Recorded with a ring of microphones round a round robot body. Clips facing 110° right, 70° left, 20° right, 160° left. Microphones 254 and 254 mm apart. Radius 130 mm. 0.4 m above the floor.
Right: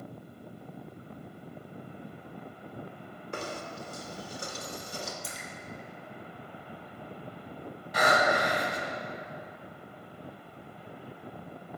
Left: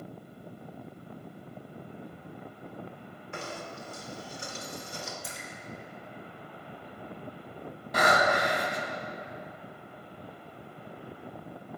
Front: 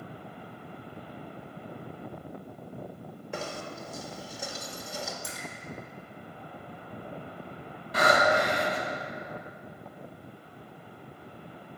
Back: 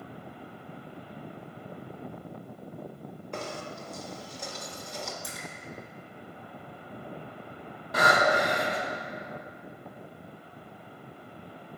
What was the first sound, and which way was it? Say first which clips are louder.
Knocking: right 2 dB, front 1 dB; 105° right.